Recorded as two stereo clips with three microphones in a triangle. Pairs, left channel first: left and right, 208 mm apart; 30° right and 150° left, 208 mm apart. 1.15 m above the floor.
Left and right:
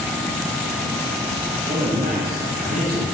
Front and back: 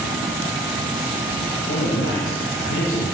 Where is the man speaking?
40° right, 0.8 m.